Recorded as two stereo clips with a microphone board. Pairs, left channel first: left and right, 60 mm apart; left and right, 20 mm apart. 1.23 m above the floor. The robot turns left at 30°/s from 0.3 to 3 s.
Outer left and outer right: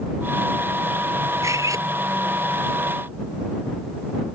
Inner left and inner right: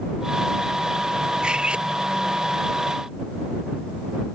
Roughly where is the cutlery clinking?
Right.